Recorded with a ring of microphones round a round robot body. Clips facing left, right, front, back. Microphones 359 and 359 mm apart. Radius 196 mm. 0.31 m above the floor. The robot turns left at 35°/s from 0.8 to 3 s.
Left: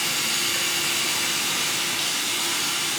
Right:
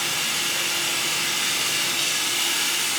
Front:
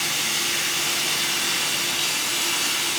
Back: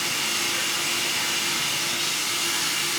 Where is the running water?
25° left, 2.0 m; by 3.0 s 50° right, 2.0 m.